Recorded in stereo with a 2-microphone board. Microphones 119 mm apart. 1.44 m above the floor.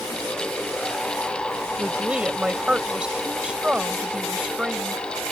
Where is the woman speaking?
10° right (ahead or behind).